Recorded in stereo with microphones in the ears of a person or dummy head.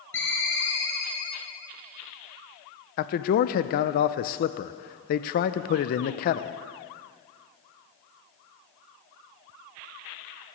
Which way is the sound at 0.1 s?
15° left (ahead or behind).